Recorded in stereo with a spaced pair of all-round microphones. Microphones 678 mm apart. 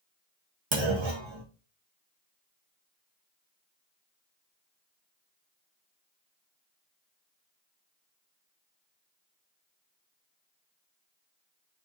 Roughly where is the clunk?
Right.